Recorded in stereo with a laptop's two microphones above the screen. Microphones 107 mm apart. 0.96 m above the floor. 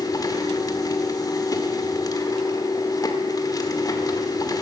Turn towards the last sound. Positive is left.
turn(degrees=35)  # may be behind; listen again after turning